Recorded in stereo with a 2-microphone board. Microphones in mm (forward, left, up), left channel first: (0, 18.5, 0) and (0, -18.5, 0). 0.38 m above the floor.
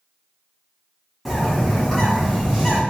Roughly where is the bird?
Centre.